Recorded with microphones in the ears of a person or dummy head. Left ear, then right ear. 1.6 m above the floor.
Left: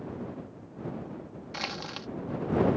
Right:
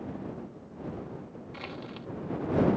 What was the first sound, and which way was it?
Crushing, 35° left (ahead or behind).